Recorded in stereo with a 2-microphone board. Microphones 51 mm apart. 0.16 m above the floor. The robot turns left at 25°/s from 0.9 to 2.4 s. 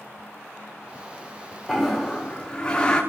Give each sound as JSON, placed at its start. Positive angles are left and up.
{"t": 1.7, "sound": "a toilet flushing", "side_deg": 0, "distance_m": 4.5}